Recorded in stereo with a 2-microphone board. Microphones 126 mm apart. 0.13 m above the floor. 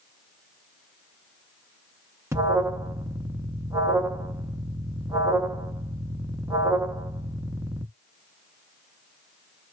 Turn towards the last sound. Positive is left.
turn(degrees=-25)  # may be behind; listen again after turning